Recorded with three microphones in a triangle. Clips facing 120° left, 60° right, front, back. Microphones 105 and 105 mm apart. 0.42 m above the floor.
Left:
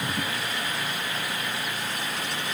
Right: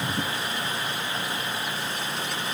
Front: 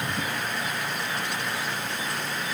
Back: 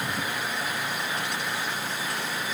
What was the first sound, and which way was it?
Only background noise.